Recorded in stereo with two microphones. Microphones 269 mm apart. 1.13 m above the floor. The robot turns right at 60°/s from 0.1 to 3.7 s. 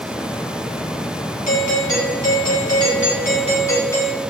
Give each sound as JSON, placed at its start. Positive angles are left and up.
{"t": 1.5, "sound": "a doorbell", "azimuth_deg": 35, "distance_m": 2.5}